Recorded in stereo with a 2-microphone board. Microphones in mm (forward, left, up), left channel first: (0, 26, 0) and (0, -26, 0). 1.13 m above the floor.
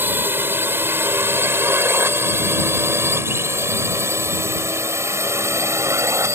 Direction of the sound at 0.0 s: 40° right (ahead or behind).